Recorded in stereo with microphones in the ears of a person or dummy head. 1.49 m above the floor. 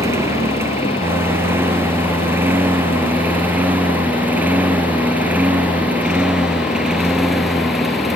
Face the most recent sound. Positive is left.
turn(degrees=-5)  # may be behind; listen again after turning